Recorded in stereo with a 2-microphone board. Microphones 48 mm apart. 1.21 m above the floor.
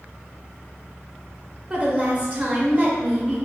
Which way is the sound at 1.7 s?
30° right (ahead or behind).